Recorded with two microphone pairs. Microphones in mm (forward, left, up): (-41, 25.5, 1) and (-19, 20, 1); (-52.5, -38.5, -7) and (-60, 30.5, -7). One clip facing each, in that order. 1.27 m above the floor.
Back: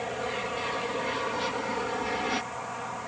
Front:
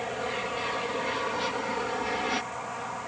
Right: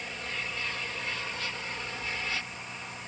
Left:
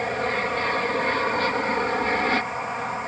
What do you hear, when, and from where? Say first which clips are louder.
0.0 s an aircraft: even, left 13 dB; 75° left